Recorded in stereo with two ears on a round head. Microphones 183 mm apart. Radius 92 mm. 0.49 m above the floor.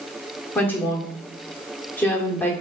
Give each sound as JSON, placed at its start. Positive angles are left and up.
{"t": 0.6, "sound": "a woman speaking", "side_deg": 10, "distance_m": 0.9}